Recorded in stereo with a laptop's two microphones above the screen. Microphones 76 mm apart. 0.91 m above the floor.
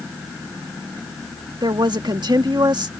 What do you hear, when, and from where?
1.6 s a woman speaking: 70° right (ahead or behind)